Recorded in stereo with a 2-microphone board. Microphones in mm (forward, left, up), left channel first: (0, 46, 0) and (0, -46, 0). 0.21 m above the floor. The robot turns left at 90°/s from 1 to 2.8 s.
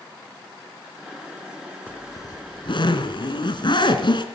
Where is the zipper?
160° left, 2.5 m; by 4.2 s 75° left, 2.5 m.